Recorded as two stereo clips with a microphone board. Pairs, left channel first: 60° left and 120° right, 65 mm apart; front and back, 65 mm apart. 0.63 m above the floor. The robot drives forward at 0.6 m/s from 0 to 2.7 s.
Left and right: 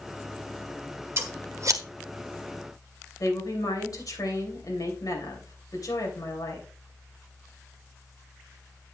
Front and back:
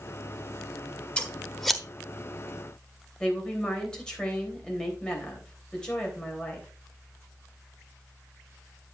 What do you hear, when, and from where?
1.2 s scissors: 70° right, 1.3 m; by 1.8 s 90° right, 1.2 m
3.2 s a woman speaking: 75° left, 3 m